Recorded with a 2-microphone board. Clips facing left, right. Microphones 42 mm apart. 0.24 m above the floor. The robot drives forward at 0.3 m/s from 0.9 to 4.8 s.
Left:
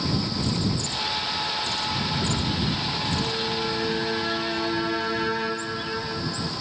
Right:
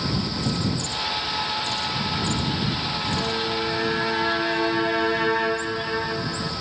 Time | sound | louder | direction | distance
3.2 | a violin | right 2 dB | 35° right (ahead or behind) | 1.1 m